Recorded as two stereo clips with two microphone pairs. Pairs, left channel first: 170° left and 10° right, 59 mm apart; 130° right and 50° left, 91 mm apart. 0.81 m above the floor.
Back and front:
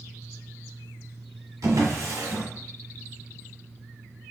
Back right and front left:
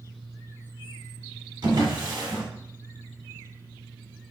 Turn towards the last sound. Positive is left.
turn(degrees=10)